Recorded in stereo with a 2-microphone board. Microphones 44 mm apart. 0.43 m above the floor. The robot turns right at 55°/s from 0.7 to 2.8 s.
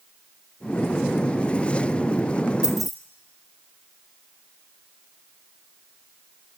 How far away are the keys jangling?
About 2.5 m.